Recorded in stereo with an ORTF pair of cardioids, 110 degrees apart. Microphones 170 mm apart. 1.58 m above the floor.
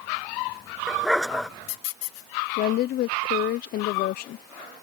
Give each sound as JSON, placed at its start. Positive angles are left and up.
{"t": 0.9, "sound": "a dog barking", "azimuth_deg": 0}
{"t": 2.6, "sound": "a woman speaking", "azimuth_deg": 65}